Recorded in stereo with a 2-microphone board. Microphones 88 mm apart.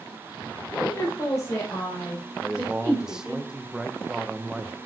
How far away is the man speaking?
About 0.7 m.